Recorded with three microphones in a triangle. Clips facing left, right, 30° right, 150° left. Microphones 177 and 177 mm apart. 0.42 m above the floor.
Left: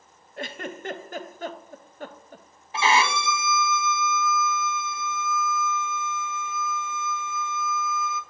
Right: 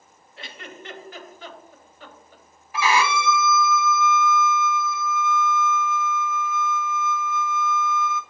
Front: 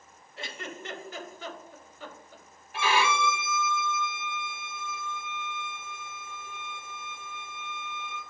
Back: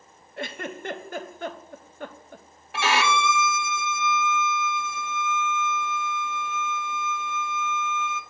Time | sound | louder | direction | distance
0.4 | a giggle | left 7 dB, back 7 dB | 125° left | 0.6 m
2.7 | a violin | right 1 dB, back 2 dB | 150° left | 0.7 m